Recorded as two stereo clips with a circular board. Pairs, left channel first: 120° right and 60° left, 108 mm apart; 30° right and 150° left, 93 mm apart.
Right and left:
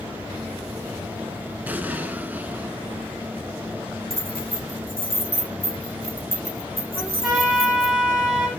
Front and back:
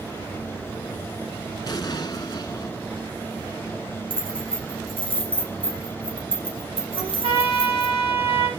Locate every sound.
1.7 s an explosion: 5° right, 1.1 m
4.1 s keys jangling: 125° left, 3.5 m
7.0 s a trumpet: 145° left, 7 m